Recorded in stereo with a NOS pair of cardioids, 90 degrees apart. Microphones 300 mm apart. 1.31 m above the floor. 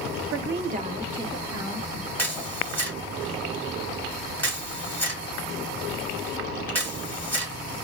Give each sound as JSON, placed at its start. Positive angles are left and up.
{"t": 0.3, "sound": "a woman speaking", "azimuth_deg": -50, "distance_m": 0.9}
{"t": 2.2, "sound": "a camera shutter", "azimuth_deg": 5, "distance_m": 2.5}